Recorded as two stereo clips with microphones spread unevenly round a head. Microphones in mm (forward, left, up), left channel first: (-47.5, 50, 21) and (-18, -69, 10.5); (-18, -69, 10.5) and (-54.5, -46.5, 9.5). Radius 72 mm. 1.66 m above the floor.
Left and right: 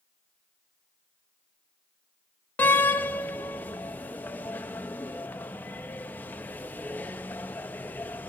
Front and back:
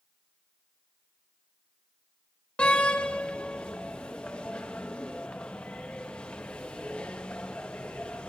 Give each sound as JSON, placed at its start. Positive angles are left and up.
{"t": 2.6, "sound": "a door slam", "azimuth_deg": 35, "distance_m": 0.6}